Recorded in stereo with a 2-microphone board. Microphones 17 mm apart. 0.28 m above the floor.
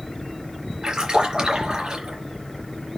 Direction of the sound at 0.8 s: 70° right (ahead or behind).